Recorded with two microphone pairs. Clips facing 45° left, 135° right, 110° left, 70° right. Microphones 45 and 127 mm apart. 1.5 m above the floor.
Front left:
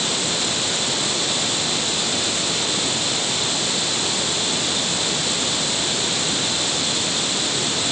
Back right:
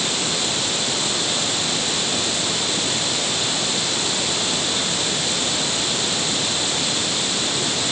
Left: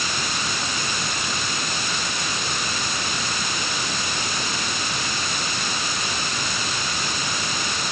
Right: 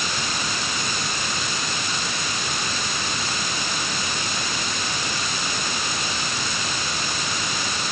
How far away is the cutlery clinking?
I don't hear cutlery clinking.